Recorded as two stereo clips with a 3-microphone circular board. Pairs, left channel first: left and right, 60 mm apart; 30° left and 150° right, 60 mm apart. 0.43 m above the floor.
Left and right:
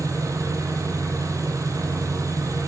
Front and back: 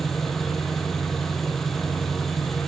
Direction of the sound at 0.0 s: 60° right.